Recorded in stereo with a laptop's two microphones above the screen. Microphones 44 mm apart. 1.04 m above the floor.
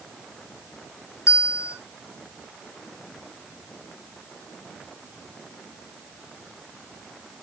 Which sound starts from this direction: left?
A bell, at 1.3 s.